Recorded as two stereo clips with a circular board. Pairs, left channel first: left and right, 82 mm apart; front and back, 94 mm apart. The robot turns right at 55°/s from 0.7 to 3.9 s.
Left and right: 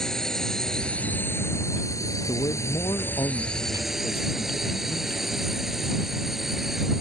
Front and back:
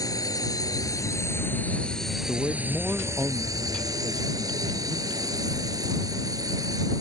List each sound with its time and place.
0.0 s a drone: 10° left; by 7.0 s 175° right
2.3 s a man speaking: 70° left; by 5.2 s 160° left